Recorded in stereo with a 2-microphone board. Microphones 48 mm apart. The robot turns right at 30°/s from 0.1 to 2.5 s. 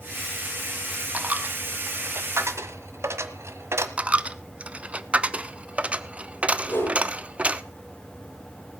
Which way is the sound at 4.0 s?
30° right (ahead or behind).